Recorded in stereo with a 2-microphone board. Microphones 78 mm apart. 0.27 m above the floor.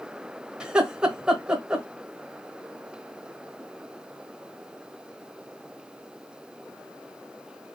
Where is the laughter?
10° right (ahead or behind), 0.9 m.